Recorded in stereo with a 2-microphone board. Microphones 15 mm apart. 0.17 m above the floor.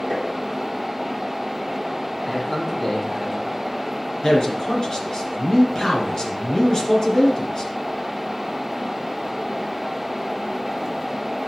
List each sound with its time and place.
0.1 s tapping: 65° left (ahead or behind), 3 m
2.2 s a man speaking: 10° left (ahead or behind), 3.5 m
4.2 s a man speaking: 40° left (ahead or behind), 2.5 m